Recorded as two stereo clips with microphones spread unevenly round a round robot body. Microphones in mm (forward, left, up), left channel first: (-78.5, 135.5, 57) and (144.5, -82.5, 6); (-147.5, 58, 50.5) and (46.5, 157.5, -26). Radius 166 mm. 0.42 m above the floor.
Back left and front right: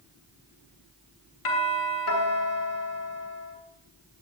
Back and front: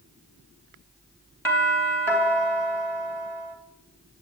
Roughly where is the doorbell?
Behind left.